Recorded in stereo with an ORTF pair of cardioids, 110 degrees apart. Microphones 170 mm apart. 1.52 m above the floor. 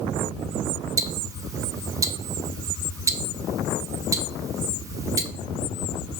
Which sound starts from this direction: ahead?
Ticking, at 1.0 s.